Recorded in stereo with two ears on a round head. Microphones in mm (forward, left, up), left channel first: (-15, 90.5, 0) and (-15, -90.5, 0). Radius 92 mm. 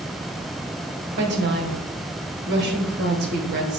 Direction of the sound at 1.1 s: 55° right (ahead or behind).